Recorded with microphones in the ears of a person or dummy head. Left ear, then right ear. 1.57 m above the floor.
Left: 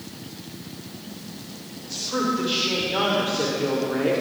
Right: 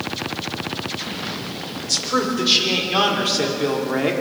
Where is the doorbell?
I don't hear a doorbell.